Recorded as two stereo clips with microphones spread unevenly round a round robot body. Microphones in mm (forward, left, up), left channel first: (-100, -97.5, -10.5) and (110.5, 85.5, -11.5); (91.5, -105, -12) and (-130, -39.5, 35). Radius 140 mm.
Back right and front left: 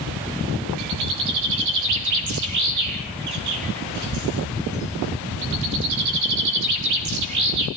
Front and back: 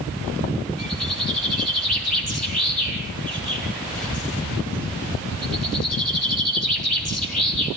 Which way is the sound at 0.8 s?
70° left.